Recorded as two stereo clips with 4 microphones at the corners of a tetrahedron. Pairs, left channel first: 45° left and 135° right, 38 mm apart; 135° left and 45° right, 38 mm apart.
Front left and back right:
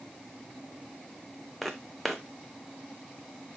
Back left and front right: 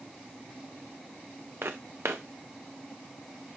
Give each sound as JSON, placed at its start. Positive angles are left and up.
{"t": 1.6, "sound": "footsteps", "azimuth_deg": -45, "distance_m": 0.9}